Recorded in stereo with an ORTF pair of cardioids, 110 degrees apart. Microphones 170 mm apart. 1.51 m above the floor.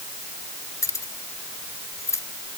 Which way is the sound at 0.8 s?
20° left.